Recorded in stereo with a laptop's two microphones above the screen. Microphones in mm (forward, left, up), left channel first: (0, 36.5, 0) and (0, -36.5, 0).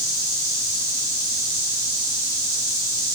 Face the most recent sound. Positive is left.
No sound to turn to.